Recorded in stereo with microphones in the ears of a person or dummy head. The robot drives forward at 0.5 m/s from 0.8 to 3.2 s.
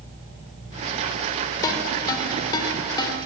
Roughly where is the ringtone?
Centre.